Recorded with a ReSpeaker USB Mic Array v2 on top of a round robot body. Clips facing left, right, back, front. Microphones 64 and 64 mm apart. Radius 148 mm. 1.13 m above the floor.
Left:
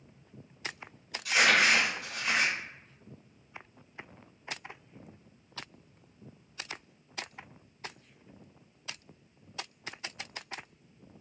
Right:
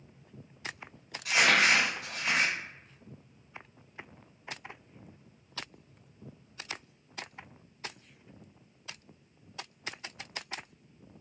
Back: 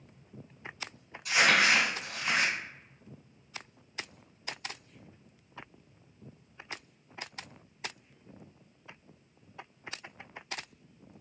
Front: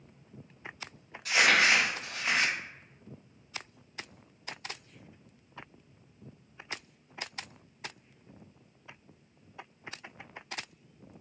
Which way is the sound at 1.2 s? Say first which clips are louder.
Even, even; 35° right.